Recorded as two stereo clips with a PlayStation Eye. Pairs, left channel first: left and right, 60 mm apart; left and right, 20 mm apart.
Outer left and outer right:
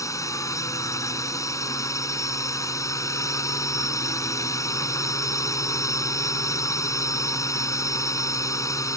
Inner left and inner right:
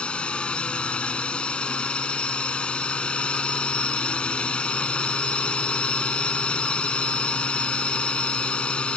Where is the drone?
65° left (ahead or behind).